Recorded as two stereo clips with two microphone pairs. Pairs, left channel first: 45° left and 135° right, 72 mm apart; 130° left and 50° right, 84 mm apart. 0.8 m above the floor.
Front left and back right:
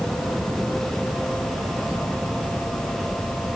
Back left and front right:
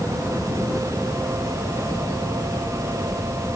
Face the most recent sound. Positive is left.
No sound to turn to.